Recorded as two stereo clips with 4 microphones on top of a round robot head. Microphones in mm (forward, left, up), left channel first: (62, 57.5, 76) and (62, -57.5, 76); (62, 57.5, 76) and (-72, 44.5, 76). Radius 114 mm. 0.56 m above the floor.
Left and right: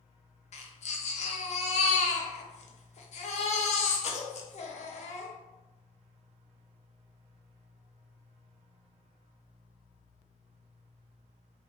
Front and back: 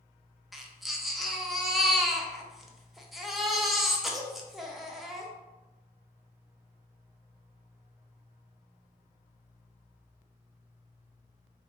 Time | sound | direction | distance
0.5 | a baby crying | 95° left | 0.7 m